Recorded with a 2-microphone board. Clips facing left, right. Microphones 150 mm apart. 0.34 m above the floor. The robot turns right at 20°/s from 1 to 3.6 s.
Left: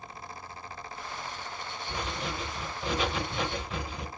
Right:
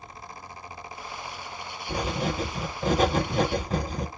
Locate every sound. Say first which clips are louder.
1.9 s writing: right 8 dB; 105° right, 0.8 m; by 4.1 s 70° right, 0.8 m